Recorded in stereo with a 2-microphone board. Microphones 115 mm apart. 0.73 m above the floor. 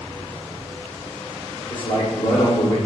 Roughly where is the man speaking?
Left.